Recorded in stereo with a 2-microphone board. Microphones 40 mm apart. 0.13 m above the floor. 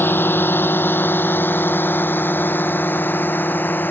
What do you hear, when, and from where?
0.0 s a drone: 60° left (ahead or behind); by 3.9 s 50° left (ahead or behind)